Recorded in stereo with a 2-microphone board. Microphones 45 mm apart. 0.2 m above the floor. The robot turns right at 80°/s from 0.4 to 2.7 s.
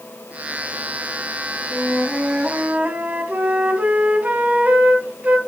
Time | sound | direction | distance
1.7 | a flute | 165° left | 1.0 m